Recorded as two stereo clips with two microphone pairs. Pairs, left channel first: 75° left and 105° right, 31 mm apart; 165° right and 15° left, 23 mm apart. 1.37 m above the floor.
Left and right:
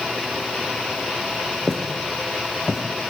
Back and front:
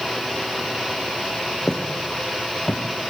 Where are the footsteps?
155° left, 3 m; by 2.8 s 170° left, 3 m.